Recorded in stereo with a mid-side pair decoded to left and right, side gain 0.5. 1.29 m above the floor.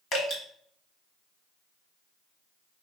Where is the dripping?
55° left, 1.8 m.